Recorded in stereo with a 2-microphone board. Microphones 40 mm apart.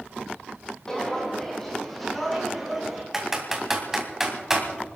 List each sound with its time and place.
0.9 s footsteps: 15° left (ahead or behind), 2.5 m; by 3.0 s 5° right (ahead or behind), 3 m
3.1 s typing on a keyboard: 10° right (ahead or behind), 2.5 m